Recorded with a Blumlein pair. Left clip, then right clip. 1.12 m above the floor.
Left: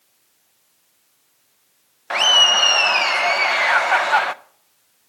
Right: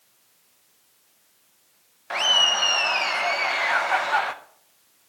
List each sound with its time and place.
2.1 s laughter: 20° left, 0.7 m